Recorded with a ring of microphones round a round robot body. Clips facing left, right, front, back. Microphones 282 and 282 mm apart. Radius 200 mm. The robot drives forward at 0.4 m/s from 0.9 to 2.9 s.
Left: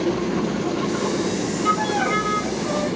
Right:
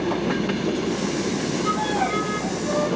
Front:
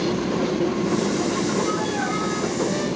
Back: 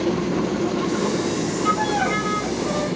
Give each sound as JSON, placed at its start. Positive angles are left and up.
{"t": 1.6, "sound": "a violin", "azimuth_deg": 165, "distance_m": 0.6}